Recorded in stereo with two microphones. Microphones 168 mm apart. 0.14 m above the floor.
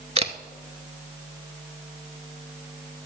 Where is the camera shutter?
40° right (ahead or behind), 0.6 m.